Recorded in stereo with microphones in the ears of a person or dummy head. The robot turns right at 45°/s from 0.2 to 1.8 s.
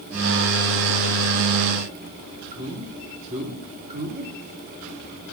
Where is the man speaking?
35° right (ahead or behind), 3 m.